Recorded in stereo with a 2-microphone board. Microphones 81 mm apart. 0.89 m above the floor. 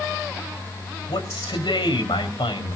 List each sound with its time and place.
1.1 s a man speaking: 85° left, 4 m